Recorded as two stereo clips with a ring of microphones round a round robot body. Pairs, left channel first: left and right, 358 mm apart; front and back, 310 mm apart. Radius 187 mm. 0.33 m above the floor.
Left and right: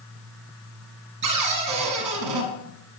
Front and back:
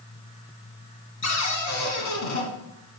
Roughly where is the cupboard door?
Ahead right.